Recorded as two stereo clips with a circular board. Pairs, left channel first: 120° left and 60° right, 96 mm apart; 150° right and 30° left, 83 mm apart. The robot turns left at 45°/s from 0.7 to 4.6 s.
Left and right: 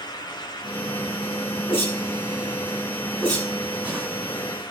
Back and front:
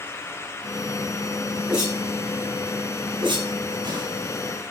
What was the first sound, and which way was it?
A whoosh, 115° left.